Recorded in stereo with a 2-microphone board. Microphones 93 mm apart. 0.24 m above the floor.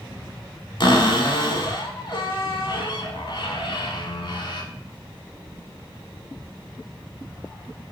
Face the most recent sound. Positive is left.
turn(degrees=60)  # may be behind; listen again after turning